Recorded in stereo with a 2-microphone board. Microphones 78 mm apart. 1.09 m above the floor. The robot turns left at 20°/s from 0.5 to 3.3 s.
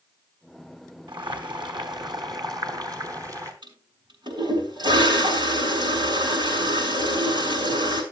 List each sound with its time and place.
1.1 s boiling: 90° right, 2.5 m; by 3.5 s 135° right, 2.5 m
3.6 s a toilet flushing: 65° right (ahead or behind), 6.5 m